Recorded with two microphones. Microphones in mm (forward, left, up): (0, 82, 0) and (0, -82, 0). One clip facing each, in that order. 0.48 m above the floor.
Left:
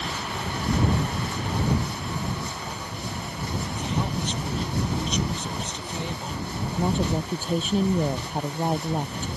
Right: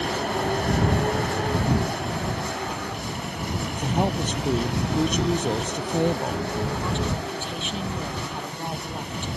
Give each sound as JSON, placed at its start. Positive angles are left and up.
{"t": 0.0, "sound": "a vehicle", "side_deg": -55}
{"t": 3.8, "sound": "a woman speaking", "side_deg": -50}
{"t": 6.8, "sound": "a woman speaking", "side_deg": 40}